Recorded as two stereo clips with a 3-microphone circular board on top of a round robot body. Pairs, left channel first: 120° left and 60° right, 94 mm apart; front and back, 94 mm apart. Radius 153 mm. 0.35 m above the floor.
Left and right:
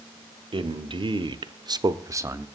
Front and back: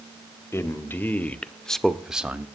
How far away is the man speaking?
About 1.9 m.